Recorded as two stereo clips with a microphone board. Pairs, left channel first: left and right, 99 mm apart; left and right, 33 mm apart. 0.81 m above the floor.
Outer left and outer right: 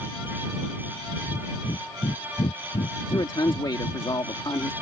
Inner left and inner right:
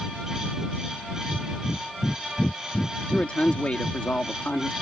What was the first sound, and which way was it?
Breathing, 90° left.